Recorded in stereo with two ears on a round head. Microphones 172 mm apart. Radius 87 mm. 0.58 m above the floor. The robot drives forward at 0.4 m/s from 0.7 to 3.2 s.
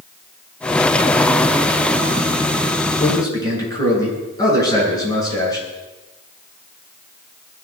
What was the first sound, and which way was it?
A man speaking, 20° left (ahead or behind).